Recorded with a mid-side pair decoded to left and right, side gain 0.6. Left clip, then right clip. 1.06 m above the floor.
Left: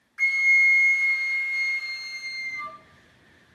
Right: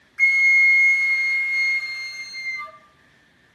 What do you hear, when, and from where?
0.2 s a flute: 20° right, 0.6 m